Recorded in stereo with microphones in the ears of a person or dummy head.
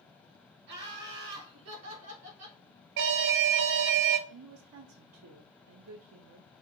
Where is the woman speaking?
80° right, 0.5 m.